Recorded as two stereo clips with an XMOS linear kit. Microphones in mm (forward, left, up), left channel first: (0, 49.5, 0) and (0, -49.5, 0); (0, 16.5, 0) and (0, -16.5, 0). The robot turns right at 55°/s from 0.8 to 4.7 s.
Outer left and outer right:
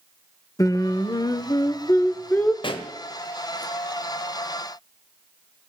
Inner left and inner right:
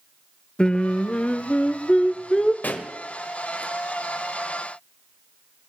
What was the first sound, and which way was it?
Singing, 65° left.